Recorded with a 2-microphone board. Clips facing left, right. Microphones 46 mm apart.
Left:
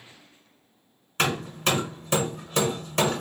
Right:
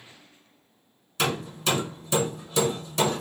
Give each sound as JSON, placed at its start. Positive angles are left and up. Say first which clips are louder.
{"t": 1.2, "sound": "hammering", "louder": "left 2 dB", "side_deg": 50, "distance_m": 1.1}